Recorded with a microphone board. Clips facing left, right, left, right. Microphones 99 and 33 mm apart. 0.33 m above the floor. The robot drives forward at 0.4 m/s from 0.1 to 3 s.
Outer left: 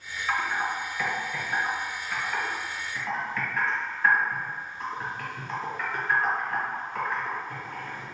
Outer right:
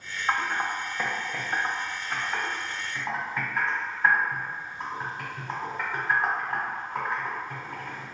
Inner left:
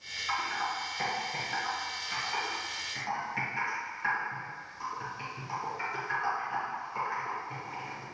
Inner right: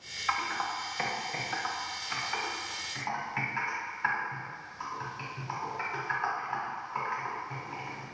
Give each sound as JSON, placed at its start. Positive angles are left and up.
{"t": 0.3, "sound": "typing on a keyboard", "side_deg": -35, "distance_m": 0.8}